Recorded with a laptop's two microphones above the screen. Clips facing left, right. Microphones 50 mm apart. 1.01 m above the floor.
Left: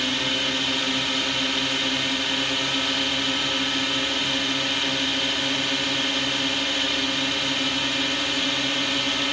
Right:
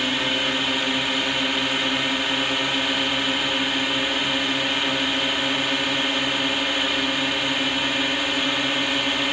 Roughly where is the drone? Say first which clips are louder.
Right 2 dB; centre.